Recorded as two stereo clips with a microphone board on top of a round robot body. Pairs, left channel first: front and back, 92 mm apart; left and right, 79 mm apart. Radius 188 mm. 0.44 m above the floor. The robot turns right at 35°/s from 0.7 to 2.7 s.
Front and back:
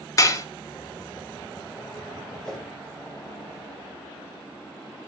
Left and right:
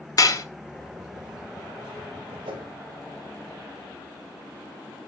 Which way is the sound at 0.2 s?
50° left.